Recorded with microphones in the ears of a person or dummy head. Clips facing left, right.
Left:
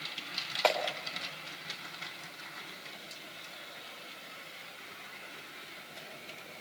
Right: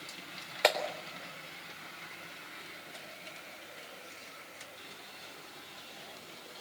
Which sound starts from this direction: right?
A clap, at 0.6 s.